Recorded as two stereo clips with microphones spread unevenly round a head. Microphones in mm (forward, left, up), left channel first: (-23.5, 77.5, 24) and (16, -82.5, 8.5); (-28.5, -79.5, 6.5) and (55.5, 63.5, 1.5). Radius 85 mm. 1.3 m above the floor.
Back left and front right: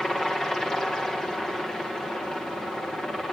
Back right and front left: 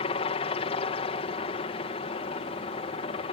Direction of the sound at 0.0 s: 165° right.